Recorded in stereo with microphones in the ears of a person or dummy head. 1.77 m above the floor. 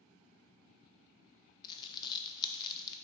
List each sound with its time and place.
1.6 s crumpling: 25° left (ahead or behind), 0.5 m